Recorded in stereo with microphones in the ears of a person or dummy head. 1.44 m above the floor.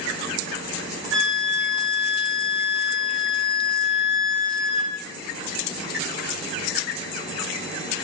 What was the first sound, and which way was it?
A flute, 80° right.